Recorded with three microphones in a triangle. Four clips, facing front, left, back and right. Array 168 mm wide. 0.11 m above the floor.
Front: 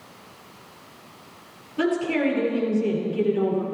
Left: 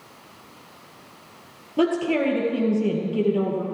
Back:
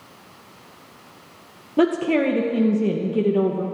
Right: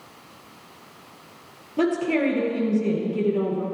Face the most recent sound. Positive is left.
turn(degrees=170)